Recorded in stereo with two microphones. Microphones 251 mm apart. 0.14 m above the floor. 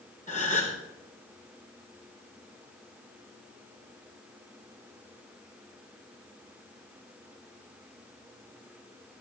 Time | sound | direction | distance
0.3 | a gasp | 30° left (ahead or behind) | 4.5 m